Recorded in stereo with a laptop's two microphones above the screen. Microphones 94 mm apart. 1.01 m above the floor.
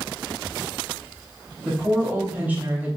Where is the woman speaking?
20° right (ahead or behind), 3 m.